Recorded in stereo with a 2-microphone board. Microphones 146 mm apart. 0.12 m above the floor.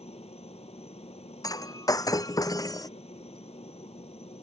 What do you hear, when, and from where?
0.0 s a helicopter: 45° left (ahead or behind)
1.4 s breaking glass: 25° left (ahead or behind)